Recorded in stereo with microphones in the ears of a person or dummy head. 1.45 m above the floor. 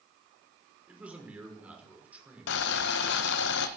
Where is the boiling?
65° left (ahead or behind), 1.2 m.